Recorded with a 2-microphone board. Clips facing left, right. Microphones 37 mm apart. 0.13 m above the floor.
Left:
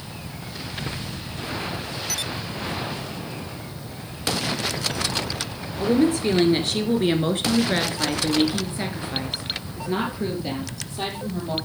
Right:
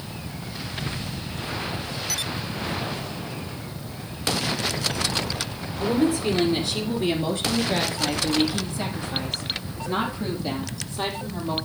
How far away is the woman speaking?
About 1.8 m.